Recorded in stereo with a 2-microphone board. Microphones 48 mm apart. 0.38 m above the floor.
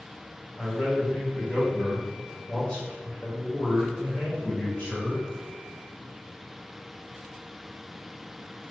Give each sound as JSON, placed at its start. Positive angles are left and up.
{"t": 0.6, "sound": "a man speaking", "side_deg": 0, "distance_m": 1.6}